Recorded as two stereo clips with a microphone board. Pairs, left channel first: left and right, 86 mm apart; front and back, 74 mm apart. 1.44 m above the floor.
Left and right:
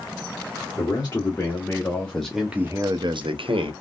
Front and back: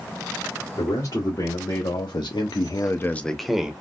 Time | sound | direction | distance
0.8 | a man speaking | 35° left | 1.6 m